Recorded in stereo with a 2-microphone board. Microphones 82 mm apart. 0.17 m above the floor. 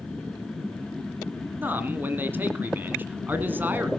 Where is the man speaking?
25° right (ahead or behind), 1.6 m.